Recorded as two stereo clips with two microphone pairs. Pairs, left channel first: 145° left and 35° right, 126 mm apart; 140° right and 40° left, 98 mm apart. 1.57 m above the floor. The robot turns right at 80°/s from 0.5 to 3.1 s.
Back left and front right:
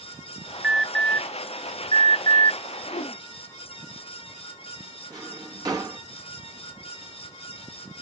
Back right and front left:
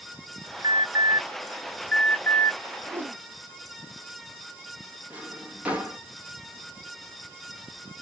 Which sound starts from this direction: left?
A whoosh, at 2.9 s.